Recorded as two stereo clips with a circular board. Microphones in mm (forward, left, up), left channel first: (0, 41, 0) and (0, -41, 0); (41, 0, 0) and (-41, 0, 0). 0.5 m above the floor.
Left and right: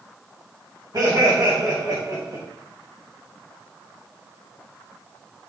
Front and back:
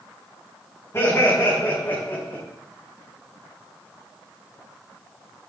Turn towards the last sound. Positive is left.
turn(degrees=-60)